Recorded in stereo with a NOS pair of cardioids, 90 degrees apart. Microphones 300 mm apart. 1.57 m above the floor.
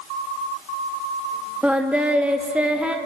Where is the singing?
5° right, 1.8 m.